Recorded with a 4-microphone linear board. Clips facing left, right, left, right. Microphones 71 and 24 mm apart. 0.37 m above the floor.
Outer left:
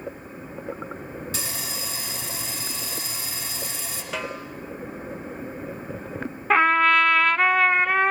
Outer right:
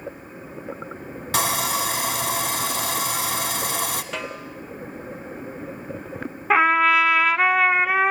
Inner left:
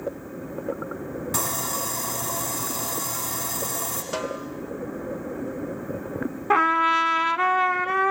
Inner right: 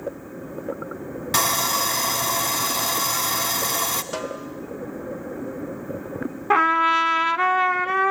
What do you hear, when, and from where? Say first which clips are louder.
1.3 s sawing: outer right 11 dB, inner right 9 dB; 65° right (ahead or behind), 1.0 m
4.1 s a snare drum: even, even; centre (ahead or behind), 0.9 m
6.5 s a trumpet: outer right 1 dB, inner right 2 dB; 5° right (ahead or behind), 0.5 m